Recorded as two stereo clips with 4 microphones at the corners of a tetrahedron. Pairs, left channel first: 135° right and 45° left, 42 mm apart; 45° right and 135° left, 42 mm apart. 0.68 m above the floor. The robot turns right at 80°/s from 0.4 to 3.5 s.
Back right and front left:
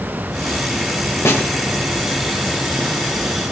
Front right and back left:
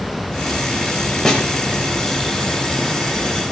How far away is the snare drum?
About 1.9 m.